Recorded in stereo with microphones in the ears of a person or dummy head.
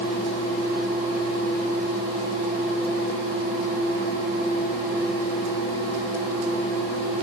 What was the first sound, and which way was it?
Only background noise.